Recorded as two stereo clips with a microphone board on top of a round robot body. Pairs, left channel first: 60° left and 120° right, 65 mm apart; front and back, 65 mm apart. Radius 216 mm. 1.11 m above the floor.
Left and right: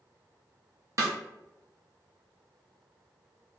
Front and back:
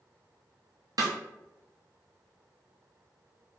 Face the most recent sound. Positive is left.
turn(degrees=-160)